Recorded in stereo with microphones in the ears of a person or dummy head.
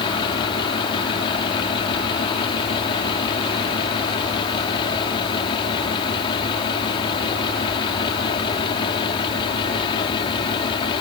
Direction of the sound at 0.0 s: 25° left (ahead or behind).